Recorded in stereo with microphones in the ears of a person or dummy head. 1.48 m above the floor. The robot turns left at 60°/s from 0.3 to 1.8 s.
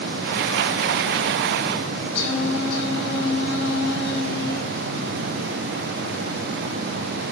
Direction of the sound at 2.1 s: 60° left (ahead or behind).